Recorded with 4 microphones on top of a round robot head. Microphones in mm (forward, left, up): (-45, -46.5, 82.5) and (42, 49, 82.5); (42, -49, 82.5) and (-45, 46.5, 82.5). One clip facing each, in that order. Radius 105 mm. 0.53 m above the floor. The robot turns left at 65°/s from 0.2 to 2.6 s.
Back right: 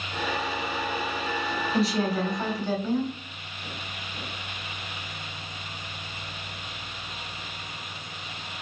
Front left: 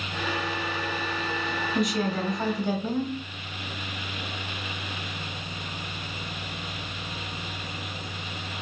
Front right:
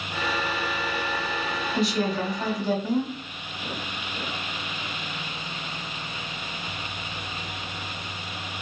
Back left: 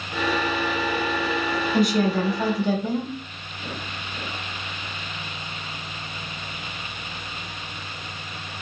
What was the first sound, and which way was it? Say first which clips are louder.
A woman speaking: back right 1 dB, back left 4 dB; 175° left.